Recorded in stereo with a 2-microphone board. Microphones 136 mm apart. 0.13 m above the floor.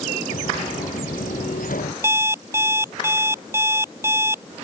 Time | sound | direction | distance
0.3 | footsteps | 85° left | ?
2.0 | an alarm clock | 20° right (ahead or behind) | ?